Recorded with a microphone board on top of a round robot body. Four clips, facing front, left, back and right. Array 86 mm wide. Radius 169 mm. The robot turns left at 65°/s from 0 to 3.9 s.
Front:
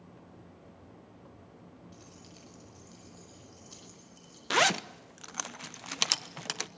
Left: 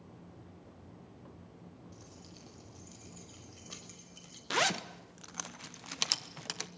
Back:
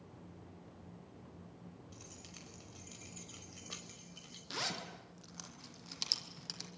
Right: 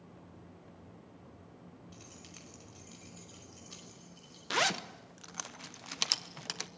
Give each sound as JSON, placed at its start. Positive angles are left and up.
{"t": 1.9, "sound": "keys jangling", "azimuth_deg": -95, "distance_m": 5.5}
{"t": 4.5, "sound": "a zipper", "azimuth_deg": 0, "distance_m": 1.2}